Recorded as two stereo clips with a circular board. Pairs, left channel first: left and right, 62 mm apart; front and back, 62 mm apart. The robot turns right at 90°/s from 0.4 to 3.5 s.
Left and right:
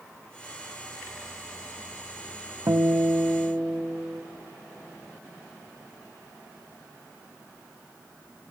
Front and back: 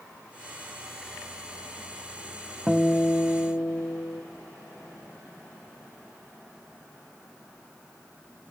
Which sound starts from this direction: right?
A guitar, at 2.7 s.